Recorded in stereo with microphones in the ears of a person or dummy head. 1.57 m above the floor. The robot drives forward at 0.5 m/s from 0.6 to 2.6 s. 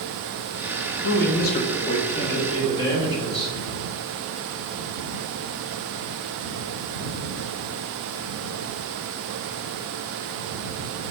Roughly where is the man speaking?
Left.